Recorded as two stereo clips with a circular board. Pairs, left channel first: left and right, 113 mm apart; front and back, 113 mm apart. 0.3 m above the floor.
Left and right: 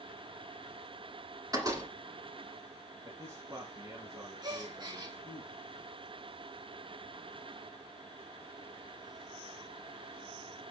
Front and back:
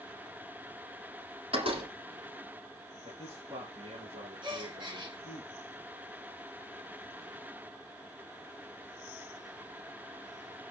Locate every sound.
1.5 s a door slam: 150° right, 8 m
3.0 s a man speaking: 150° right, 7 m
4.4 s a gasp: 140° right, 4.5 m